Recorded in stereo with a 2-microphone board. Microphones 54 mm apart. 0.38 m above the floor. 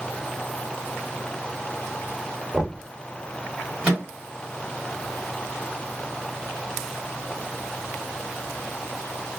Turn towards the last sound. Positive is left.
turn(degrees=-25)  # may be behind; listen again after turning